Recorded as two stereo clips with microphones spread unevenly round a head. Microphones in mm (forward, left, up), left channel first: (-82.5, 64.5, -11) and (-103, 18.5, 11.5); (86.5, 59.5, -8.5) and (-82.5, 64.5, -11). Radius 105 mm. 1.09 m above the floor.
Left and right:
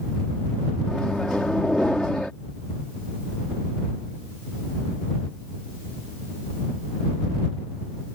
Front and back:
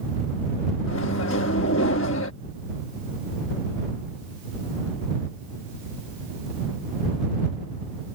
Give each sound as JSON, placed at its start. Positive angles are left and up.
{"t": 0.9, "sound": "a microwave", "azimuth_deg": -20}